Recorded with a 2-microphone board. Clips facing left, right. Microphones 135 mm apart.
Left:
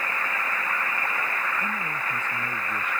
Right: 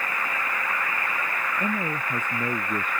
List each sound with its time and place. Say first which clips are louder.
1.6 s a man speaking: right 3 dB; 50° right (ahead or behind)